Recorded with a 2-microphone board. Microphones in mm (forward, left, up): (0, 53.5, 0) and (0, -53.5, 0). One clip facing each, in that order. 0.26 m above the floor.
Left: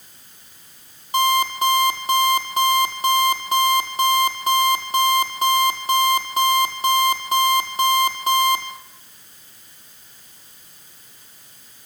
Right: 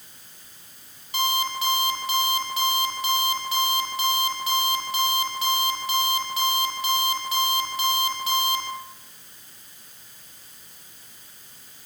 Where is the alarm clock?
45° left (ahead or behind), 5.5 m.